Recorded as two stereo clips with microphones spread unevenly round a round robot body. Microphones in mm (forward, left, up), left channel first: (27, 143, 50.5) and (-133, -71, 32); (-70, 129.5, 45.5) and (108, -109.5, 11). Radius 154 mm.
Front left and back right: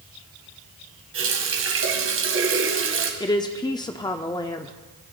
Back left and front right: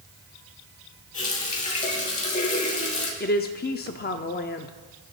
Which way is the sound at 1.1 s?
165° right.